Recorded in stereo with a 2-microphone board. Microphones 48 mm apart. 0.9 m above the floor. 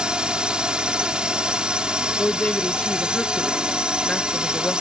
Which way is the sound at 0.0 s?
15° right (ahead or behind).